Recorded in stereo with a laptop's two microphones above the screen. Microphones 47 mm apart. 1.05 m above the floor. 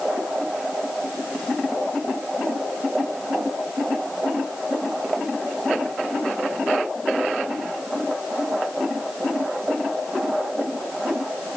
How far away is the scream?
I don't hear a scream.